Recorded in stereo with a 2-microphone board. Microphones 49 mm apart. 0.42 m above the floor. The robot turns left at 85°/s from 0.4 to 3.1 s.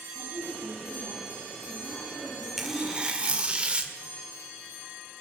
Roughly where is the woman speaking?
Ahead.